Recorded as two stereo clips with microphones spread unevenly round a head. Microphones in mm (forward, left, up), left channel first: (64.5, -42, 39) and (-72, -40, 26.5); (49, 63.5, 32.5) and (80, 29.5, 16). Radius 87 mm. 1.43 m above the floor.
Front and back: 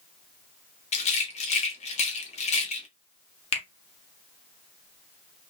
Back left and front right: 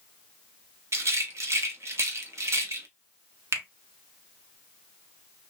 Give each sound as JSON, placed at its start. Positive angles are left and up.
{"t": 0.9, "sound": "a rattle", "azimuth_deg": -25, "distance_m": 0.8}
{"t": 3.5, "sound": "a finger snap", "azimuth_deg": -30, "distance_m": 0.9}